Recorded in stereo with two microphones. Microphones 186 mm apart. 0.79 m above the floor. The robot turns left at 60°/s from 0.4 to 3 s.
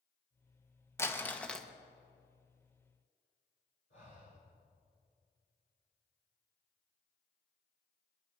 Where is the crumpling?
15° left (ahead or behind), 1.1 m; by 1.7 s centre (ahead or behind), 1.1 m.